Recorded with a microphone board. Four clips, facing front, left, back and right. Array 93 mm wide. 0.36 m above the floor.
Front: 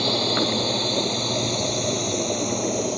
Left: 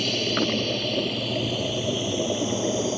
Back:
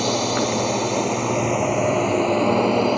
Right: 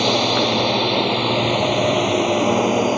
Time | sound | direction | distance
0.0 | a drone | 105° right | ?